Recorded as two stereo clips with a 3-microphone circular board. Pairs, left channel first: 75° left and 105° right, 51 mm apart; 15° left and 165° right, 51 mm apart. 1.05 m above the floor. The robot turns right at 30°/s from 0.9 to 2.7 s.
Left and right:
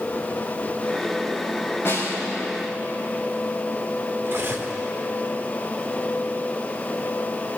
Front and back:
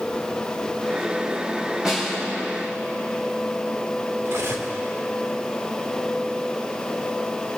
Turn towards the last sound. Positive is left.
turn(degrees=-140)